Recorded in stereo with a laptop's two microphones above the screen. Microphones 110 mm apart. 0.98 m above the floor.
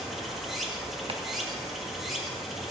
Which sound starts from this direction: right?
Chopping, at 1.1 s.